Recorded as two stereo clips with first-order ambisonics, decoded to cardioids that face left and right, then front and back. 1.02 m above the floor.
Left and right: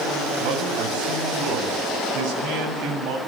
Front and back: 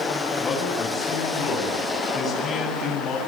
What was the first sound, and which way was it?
A man speaking, 65° right.